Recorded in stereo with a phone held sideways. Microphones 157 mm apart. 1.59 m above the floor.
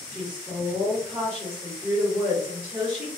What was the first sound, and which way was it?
A woman speaking, 15° right (ahead or behind).